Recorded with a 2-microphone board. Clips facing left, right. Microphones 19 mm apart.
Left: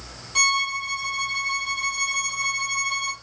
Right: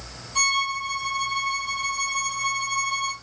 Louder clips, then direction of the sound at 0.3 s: Left 2 dB; 40° left (ahead or behind).